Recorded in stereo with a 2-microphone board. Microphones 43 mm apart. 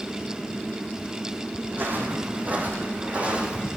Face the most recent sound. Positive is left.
turn(degrees=-20)  # may be behind; listen again after turning